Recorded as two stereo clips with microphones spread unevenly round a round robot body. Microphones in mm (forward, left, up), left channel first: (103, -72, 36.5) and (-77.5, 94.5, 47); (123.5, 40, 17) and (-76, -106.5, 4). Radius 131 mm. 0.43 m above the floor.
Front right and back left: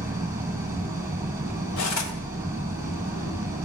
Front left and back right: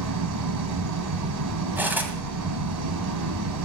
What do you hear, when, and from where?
0.0 s an engine running: 145° right, 2 m
1.8 s cutlery clinking: 60° right, 1.9 m